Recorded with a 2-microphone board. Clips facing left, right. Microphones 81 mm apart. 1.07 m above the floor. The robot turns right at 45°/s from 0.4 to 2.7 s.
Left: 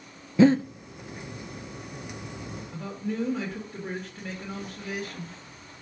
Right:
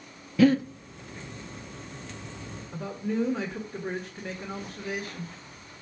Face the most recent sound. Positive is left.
turn(degrees=-10)  # may be behind; listen again after turning